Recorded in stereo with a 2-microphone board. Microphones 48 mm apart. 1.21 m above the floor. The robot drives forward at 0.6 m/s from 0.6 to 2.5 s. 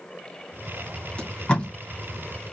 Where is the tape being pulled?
25° left (ahead or behind), 2.5 m; by 1.7 s 20° left (ahead or behind), 2.5 m.